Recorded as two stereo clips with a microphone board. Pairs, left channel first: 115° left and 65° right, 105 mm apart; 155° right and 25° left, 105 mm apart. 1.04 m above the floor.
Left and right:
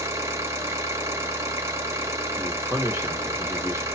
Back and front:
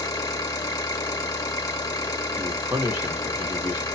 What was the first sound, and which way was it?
An engine running, 120° right.